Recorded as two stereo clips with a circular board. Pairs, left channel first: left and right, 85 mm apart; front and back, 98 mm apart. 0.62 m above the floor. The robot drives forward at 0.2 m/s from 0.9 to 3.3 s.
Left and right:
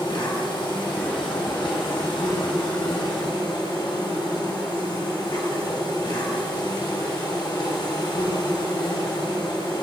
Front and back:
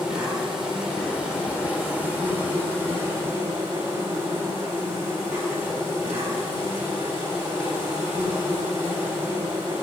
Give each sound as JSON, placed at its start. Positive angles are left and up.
{"t": 0.0, "sound": "an insect", "azimuth_deg": 100, "distance_m": 1.5}